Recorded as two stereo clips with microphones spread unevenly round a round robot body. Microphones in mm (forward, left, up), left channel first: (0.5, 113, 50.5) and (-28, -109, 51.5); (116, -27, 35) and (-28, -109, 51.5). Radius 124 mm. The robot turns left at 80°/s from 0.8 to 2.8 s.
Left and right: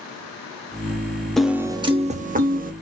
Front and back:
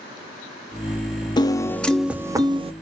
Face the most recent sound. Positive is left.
turn(degrees=-120)